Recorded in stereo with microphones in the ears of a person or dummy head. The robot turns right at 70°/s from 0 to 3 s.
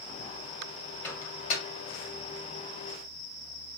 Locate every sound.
1.0 s a microwave: 10° left (ahead or behind), 1.8 m; by 1.6 s 50° left (ahead or behind), 1.8 m